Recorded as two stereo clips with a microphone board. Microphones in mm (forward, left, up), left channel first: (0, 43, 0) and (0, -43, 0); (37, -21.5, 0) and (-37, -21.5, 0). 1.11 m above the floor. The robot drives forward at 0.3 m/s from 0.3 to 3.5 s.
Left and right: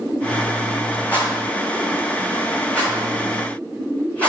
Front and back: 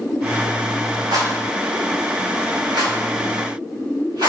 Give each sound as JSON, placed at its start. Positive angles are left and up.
{"t": 1.1, "sound": "a rattle", "azimuth_deg": 160, "distance_m": 3.5}